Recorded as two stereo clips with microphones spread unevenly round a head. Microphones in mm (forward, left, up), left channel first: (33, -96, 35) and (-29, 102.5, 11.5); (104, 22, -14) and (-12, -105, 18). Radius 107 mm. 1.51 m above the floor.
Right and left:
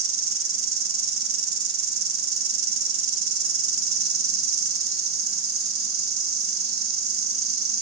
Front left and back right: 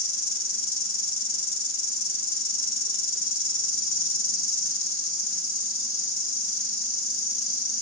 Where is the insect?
80° left, 1.3 m.